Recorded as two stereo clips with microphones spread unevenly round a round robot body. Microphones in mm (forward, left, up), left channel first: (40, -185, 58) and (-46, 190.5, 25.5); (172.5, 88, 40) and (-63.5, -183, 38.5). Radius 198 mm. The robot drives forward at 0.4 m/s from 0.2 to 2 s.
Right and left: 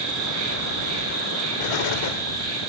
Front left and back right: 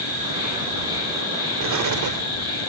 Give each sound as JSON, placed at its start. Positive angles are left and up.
{"t": 0.0, "sound": "an insect", "azimuth_deg": 145, "distance_m": 8.0}
{"t": 1.6, "sound": "an explosion", "azimuth_deg": -85, "distance_m": 0.9}